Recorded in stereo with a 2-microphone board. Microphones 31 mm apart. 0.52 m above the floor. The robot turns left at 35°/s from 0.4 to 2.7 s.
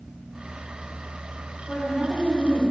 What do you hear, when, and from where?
1.7 s a woman speaking: 150° left, 1.7 m; by 2.6 s 115° left, 1.7 m